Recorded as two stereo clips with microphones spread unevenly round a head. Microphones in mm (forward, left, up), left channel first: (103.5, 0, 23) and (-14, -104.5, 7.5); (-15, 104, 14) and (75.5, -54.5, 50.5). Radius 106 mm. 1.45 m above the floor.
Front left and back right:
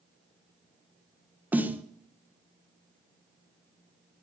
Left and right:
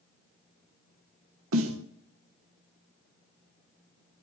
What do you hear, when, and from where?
1.5 s a snare drum: 60° right, 1.2 m